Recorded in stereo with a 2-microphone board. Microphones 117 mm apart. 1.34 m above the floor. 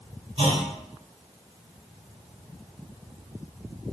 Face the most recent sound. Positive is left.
turn(degrees=-65)  # may be behind; listen again after turning